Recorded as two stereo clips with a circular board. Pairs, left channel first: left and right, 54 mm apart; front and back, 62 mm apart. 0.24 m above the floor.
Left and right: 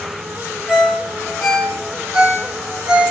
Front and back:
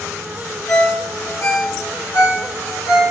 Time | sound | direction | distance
0.7 | a ringtone | 15° right | 2.5 m